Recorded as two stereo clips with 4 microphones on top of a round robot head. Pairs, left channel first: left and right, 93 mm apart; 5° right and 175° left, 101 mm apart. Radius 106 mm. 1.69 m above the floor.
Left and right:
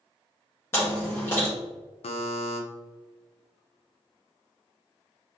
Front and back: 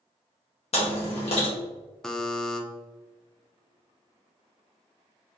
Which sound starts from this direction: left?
A buzzer, at 2.0 s.